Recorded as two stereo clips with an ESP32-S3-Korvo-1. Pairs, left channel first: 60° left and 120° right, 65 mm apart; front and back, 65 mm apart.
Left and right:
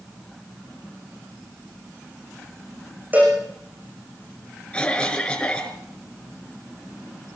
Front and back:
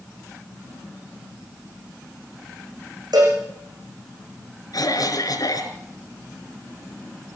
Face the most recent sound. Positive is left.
turn(degrees=-15)